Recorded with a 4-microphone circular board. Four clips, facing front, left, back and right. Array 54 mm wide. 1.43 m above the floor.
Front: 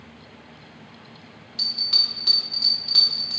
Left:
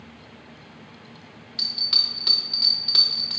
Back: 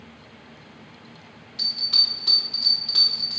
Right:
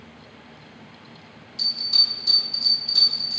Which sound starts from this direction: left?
A bell, at 1.6 s.